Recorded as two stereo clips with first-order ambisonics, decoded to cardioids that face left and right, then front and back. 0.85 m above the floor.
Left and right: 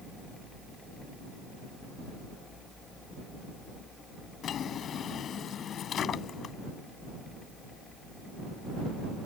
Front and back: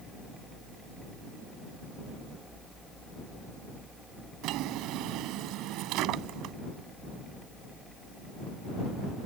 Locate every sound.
4.4 s a drawer: 145° left